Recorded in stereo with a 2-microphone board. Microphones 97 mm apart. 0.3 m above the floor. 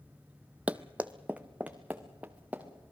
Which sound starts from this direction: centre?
Running footsteps, at 0.7 s.